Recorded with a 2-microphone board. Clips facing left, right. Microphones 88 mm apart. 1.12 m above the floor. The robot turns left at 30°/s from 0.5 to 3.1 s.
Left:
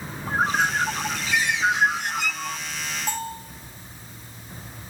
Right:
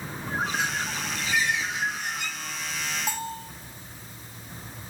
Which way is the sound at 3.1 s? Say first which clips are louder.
Left 2 dB; 10° right (ahead or behind).